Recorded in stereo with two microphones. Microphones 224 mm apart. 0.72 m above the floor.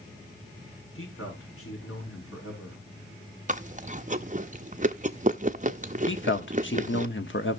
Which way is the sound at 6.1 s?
60° left (ahead or behind).